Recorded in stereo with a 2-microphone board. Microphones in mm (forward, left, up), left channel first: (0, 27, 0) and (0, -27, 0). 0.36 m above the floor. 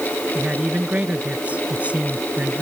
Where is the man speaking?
25° right (ahead or behind).